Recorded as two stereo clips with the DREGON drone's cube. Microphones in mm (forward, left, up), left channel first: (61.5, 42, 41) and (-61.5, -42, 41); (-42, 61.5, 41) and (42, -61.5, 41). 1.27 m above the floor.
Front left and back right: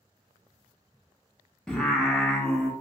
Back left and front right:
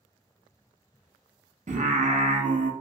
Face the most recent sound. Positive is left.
turn(degrees=-50)